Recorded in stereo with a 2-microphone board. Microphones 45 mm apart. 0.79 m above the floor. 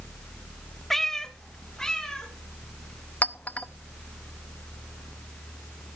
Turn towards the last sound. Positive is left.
turn(degrees=30)  # may be behind; listen again after turning